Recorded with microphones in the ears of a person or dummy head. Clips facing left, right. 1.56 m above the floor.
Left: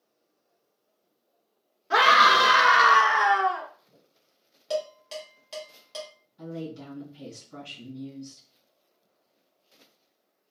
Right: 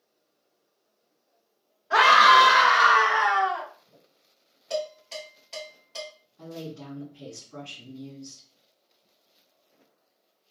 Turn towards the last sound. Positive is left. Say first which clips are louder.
# left 2 dB
turn(degrees=55)  # may be behind; listen again after turning